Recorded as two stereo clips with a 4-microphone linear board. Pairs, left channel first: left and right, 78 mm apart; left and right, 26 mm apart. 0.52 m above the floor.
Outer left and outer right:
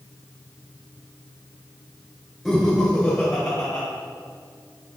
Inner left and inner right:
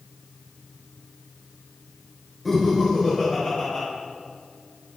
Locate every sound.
2.5 s laughter: 5° left (ahead or behind), 1.7 m; by 3.9 s 30° left (ahead or behind), 2.5 m